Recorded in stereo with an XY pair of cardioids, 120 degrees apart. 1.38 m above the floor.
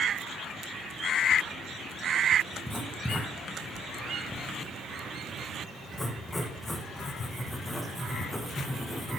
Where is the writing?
10° left, 1.4 m.